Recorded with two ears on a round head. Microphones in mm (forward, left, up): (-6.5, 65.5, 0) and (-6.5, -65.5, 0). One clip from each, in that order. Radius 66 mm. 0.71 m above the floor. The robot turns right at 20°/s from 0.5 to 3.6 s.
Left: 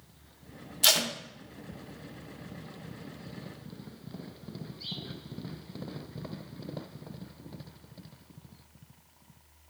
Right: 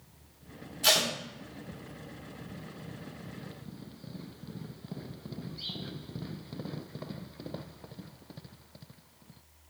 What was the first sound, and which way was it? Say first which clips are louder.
Tape being pulled: left 1 dB; 50° left (ahead or behind).